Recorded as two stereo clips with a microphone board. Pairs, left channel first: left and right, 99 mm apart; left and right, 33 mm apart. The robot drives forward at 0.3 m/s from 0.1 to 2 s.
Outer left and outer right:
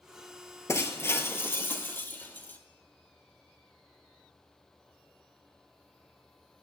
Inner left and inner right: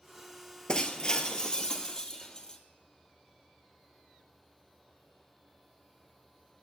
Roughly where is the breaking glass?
Left.